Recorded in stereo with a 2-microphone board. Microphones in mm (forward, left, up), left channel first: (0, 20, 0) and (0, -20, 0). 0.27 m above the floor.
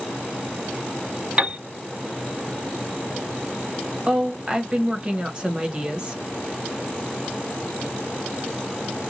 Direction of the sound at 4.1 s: 25° right (ahead or behind).